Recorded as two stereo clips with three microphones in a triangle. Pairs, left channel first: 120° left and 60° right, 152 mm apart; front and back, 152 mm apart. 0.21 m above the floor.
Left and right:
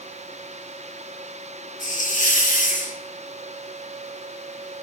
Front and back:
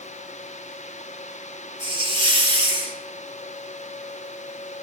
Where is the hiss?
130° left, 3 m.